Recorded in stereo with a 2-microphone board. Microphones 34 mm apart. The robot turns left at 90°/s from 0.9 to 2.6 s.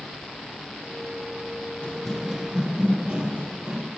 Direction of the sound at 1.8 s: 25° left (ahead or behind).